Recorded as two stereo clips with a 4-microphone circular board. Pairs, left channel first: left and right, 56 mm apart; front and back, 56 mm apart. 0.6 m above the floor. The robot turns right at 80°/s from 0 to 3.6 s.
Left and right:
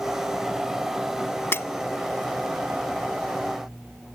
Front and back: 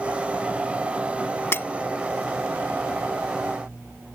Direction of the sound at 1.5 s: 45° left.